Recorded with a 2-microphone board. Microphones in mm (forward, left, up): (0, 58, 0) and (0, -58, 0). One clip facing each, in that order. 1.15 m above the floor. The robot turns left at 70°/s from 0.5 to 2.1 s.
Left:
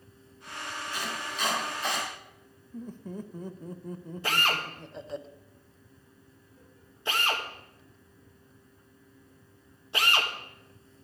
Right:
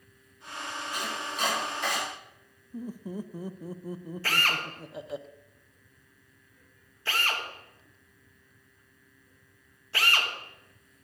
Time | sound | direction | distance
0.9 | chopping | 15° right (ahead or behind) | 5 m
2.7 | laughter | 5° right (ahead or behind) | 0.6 m
4.2 | a drill | 20° left (ahead or behind) | 1.2 m